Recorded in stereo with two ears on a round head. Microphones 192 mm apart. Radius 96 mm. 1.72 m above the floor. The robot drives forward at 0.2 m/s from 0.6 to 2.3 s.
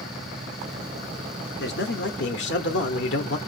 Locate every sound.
1.6 s a man speaking: 55° left (ahead or behind), 0.7 m; by 3.4 s 60° left (ahead or behind), 0.7 m